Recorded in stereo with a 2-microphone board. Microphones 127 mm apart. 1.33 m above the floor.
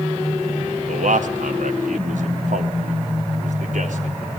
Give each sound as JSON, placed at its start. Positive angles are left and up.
{"t": 0.9, "sound": "a man speaking", "side_deg": -85, "distance_m": 2.0}